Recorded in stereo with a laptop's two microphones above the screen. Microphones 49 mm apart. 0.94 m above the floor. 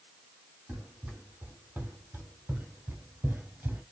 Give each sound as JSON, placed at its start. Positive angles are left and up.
{"t": 0.7, "sound": "running footsteps", "side_deg": -40, "distance_m": 2.0}